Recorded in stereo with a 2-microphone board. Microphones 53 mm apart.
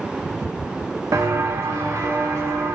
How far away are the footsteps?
About 0.6 m.